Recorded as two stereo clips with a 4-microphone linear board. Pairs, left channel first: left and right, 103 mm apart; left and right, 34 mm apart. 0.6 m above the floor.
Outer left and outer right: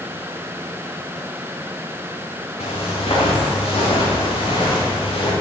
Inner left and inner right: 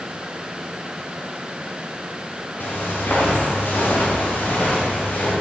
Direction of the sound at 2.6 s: 80° left.